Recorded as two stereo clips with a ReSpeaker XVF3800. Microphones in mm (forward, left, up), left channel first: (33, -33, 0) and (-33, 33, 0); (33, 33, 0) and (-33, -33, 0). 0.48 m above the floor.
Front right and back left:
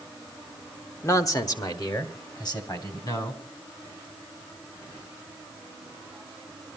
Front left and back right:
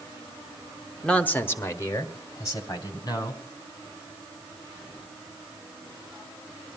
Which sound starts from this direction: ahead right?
A man speaking, at 1.0 s.